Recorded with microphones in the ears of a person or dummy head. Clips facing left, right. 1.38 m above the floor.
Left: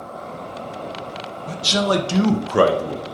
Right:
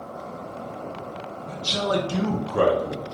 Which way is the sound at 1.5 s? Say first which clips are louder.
Left 5 dB; 75° left (ahead or behind).